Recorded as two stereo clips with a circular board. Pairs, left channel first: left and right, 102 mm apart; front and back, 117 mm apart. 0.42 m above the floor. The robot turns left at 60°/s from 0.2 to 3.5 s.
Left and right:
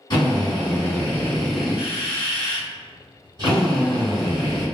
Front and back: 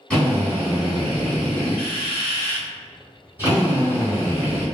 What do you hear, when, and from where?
0.1 s a drill: 80° left, 1.9 m; by 4.7 s 120° right, 1.9 m